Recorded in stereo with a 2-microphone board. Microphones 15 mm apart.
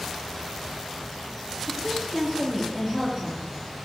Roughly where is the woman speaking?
Centre.